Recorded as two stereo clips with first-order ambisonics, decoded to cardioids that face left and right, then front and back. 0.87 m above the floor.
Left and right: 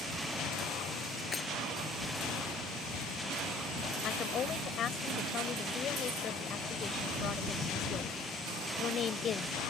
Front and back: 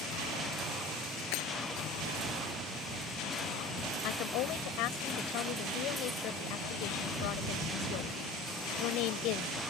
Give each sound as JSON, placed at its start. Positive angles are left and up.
{"t": 1.3, "sound": "breaking glass", "azimuth_deg": 15}
{"t": 4.0, "sound": "a woman speaking", "azimuth_deg": 30}